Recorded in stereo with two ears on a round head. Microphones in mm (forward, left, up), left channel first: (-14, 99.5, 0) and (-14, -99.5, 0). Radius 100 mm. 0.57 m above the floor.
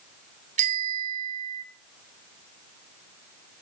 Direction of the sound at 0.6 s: 35° right (ahead or behind).